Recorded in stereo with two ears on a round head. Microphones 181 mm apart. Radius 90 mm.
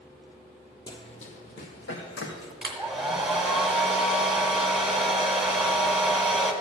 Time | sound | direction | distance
0.9 | running footsteps | 20° left (ahead or behind) | 1.1 m
2.6 | a hair dryer | 5° right (ahead or behind) | 1.3 m